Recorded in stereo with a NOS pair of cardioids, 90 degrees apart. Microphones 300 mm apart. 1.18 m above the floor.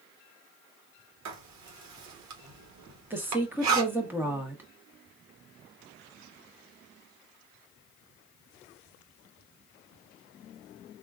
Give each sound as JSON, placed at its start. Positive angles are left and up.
{"t": 1.2, "sound": "writing", "azimuth_deg": -65, "distance_m": 1.2}
{"t": 3.1, "sound": "a woman speaking", "azimuth_deg": -5, "distance_m": 1.2}